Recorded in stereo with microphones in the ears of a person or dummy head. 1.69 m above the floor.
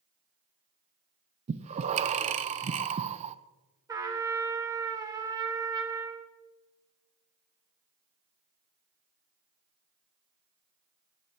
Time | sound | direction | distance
1.5 | breathing | 40° right (ahead or behind) | 0.8 m
3.9 | a trumpet | 15° right (ahead or behind) | 1.3 m